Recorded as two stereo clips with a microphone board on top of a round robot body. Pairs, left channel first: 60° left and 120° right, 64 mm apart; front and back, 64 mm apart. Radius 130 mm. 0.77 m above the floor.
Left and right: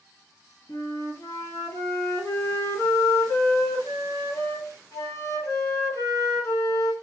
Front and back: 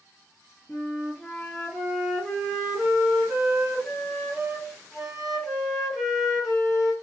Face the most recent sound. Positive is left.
turn(degrees=90)